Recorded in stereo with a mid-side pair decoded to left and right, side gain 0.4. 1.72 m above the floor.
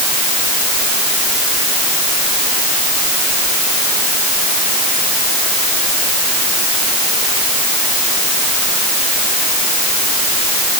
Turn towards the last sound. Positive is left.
No sound to turn to.